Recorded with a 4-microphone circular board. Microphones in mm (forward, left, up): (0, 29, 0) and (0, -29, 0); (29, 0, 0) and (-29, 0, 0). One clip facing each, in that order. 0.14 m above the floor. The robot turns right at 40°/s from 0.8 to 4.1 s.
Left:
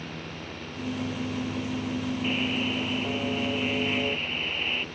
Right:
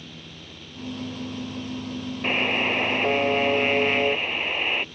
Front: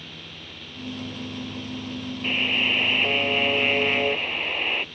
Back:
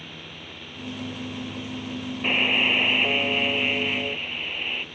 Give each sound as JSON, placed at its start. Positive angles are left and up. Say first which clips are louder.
{"t": 2.2, "sound": "a buzzer", "louder": "right 7 dB, back 2 dB", "azimuth_deg": -120}